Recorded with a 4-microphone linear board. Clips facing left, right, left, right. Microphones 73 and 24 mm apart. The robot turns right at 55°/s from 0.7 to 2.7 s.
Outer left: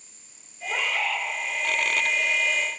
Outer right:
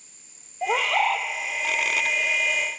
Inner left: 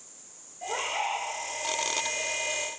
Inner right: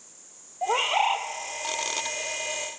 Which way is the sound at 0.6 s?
80° right.